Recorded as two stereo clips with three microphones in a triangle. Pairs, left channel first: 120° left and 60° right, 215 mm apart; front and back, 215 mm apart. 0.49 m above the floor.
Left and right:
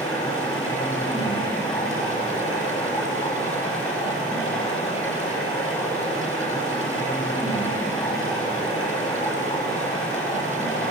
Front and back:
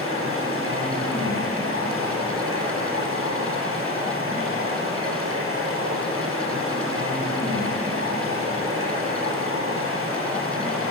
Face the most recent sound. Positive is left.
turn(degrees=-170)